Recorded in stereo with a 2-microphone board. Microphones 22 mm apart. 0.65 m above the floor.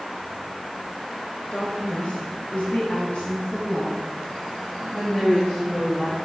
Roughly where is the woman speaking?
Left.